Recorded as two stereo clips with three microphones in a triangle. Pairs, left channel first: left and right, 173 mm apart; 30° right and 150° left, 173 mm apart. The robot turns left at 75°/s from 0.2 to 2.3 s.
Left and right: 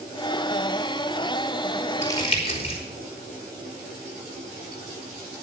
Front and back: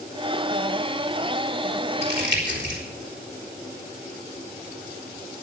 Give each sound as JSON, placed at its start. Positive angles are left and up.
{"t": 2.0, "sound": "crumpling", "azimuth_deg": 165, "distance_m": 4.0}